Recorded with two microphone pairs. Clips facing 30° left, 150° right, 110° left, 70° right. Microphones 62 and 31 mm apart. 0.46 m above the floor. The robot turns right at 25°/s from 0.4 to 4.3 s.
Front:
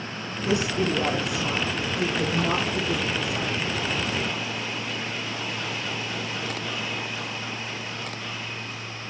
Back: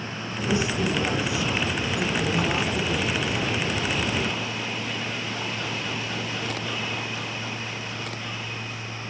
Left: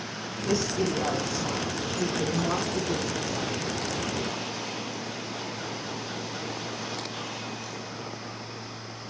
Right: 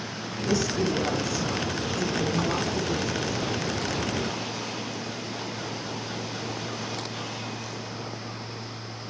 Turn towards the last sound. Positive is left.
turn(degrees=135)